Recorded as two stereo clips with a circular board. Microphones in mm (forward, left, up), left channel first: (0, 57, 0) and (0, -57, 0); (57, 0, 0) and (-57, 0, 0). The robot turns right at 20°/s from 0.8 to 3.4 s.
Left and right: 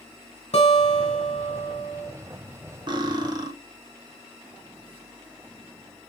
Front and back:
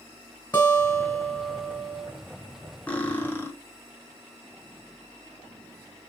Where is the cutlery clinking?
70° right, 0.5 m; by 3.5 s 60° right, 0.5 m.